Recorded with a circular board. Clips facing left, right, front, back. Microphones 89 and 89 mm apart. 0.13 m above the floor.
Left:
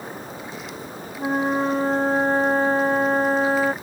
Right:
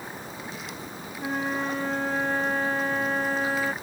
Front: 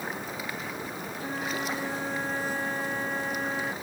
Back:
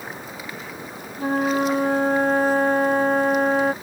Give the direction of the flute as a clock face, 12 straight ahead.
7 o'clock.